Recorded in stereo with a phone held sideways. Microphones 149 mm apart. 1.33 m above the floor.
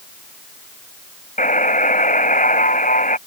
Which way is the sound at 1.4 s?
65° left (ahead or behind).